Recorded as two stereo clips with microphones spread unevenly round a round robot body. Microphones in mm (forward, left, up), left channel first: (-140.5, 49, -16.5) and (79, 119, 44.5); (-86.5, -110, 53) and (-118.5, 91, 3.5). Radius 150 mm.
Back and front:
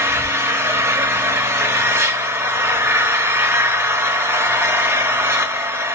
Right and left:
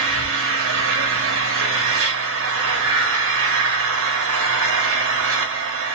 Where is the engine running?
100° left, 0.8 m.